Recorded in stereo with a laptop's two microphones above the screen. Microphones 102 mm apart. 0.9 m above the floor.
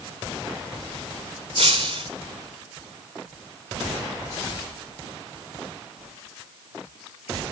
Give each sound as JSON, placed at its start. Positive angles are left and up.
{"t": 1.6, "sound": "breaking glass", "side_deg": -60, "distance_m": 2.0}